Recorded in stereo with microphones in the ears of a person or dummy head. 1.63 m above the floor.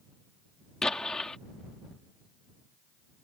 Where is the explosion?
5° left (ahead or behind).